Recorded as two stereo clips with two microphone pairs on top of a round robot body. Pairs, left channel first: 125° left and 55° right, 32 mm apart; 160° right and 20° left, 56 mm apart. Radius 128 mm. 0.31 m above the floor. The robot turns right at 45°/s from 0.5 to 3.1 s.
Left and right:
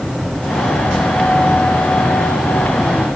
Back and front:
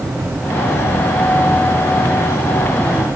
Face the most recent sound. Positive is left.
No sound to turn to.